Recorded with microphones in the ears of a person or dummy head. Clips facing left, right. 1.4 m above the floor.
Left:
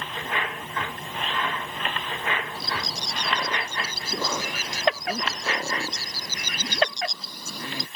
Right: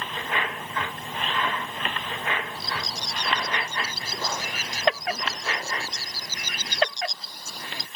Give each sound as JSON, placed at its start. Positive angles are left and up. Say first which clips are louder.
{"t": 2.5, "sound": "a bird", "louder": "left 1 dB", "side_deg": 85}